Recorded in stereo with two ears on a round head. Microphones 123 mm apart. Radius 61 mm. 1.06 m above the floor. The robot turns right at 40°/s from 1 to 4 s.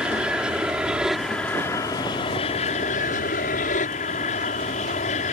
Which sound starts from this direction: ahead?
An aircraft, at 0.0 s.